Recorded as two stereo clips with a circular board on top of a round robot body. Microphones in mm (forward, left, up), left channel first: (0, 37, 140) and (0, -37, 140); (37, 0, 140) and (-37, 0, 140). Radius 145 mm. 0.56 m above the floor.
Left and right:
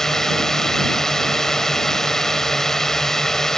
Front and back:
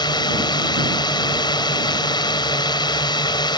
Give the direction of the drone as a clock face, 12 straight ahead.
12 o'clock.